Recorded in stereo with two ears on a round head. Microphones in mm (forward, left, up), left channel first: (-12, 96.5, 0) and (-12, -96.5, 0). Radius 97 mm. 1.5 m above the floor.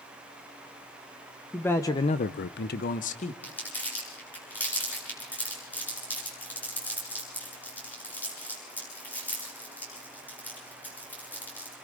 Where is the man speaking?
5° left (ahead or behind), 1.3 m; by 3.3 s 30° left (ahead or behind), 1.5 m.